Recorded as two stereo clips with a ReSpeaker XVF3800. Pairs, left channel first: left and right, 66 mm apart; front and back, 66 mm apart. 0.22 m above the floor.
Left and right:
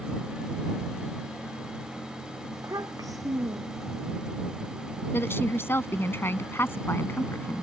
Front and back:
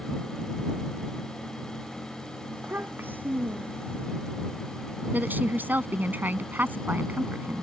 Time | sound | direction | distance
2.5 | a child speaking | 120° right | ?
5.1 | a woman speaking | 130° left | ?